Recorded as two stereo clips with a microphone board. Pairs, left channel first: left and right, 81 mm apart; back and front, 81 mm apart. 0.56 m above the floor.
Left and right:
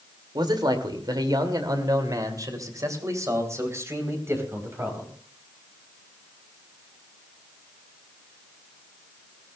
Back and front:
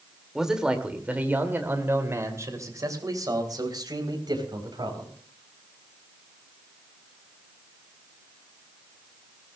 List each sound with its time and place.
0.3 s a man speaking: 85° right, 2.0 m; by 5.1 s 30° right, 4 m